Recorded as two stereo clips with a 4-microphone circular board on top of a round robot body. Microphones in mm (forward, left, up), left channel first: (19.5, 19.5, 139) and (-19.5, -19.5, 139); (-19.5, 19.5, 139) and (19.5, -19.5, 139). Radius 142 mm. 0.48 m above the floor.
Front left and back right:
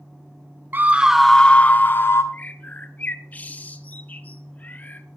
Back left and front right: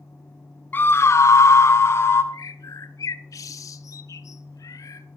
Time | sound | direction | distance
0.7 | a scream | straight behind | 1.1 m
2.3 | a bird | 110° left | 0.7 m